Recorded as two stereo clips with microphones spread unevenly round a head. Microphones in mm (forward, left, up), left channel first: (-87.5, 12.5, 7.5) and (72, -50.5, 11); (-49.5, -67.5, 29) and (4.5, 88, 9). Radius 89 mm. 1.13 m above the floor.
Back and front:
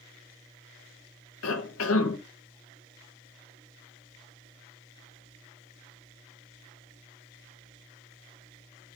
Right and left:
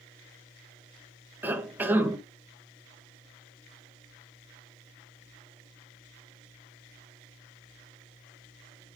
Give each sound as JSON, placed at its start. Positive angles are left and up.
{"t": 1.4, "sound": "a cough", "azimuth_deg": 150, "distance_m": 1.4}